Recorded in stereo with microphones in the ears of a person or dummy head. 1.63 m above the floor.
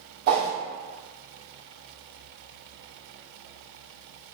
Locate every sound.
0.3 s a whoosh: 50° right (ahead or behind), 0.9 m